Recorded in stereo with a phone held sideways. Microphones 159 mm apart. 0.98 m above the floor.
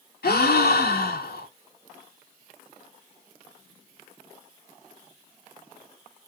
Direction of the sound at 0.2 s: 80° left.